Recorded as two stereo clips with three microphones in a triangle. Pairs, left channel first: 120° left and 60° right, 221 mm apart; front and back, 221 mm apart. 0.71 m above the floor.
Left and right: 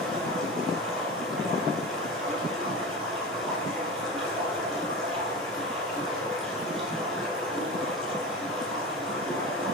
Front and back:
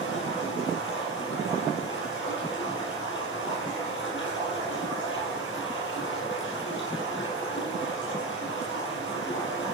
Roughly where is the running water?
Ahead left.